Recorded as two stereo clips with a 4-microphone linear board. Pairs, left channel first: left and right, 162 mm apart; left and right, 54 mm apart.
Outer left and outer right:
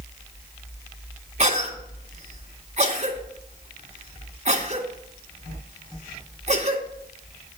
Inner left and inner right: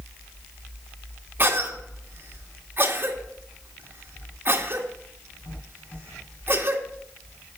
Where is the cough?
45° right (ahead or behind), 2 m.